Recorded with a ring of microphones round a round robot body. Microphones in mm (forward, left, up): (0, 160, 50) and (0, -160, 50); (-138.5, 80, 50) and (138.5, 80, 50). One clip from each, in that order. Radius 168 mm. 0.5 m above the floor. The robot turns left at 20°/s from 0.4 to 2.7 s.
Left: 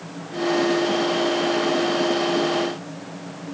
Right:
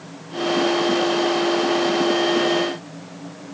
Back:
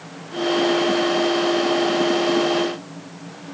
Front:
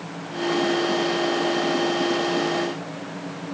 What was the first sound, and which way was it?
Only background noise.